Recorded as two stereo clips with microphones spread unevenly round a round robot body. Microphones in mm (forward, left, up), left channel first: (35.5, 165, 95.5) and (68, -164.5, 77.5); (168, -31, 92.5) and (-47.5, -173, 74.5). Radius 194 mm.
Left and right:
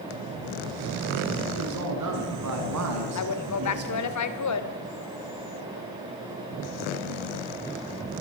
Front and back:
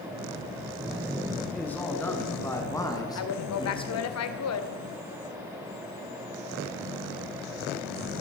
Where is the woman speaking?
60° left, 1.8 m.